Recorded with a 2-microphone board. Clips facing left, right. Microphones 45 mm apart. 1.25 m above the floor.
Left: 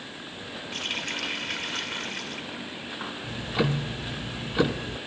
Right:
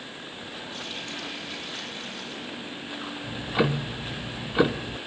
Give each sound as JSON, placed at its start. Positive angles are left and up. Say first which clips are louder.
{"t": 0.7, "sound": "a running tap", "louder": "left 7 dB", "side_deg": 65, "distance_m": 3.0}
{"t": 3.2, "sound": "ticking", "louder": "right 2 dB", "side_deg": -15, "distance_m": 0.9}